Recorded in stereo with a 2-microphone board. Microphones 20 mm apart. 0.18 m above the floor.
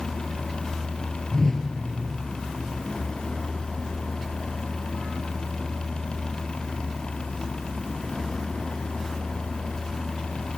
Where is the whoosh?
35° left (ahead or behind), 2.5 m.